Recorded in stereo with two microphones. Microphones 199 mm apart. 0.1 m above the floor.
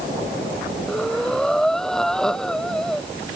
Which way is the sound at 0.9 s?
5° left (ahead or behind).